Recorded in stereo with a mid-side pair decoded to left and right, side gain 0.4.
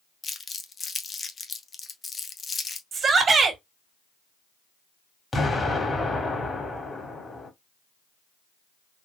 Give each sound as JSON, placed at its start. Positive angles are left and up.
{"t": 0.2, "sound": "crumpling", "azimuth_deg": 40, "distance_m": 0.9}
{"t": 2.9, "sound": "a shout", "azimuth_deg": -50, "distance_m": 1.9}
{"t": 5.3, "sound": "an explosion", "azimuth_deg": 30, "distance_m": 1.9}